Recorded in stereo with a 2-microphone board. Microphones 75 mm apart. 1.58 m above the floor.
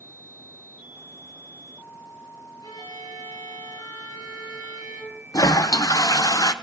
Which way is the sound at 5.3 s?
55° left (ahead or behind).